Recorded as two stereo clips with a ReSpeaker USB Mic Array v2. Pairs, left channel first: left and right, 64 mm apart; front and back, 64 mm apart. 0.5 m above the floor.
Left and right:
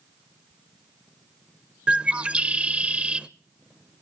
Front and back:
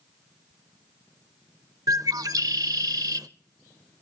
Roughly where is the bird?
Behind.